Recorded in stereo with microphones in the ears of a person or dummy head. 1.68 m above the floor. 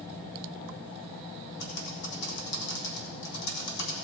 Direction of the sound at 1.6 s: 70° left (ahead or behind).